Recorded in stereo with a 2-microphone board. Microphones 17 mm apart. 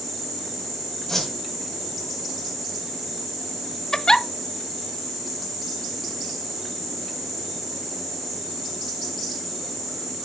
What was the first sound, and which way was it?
A whoosh, 15° left (ahead or behind).